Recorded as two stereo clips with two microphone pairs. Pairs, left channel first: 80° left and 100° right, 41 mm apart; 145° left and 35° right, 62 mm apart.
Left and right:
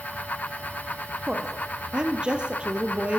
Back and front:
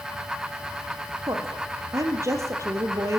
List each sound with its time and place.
1.3 s a woman speaking: 30° right, 3.5 m; by 3.2 s 45° right, 3 m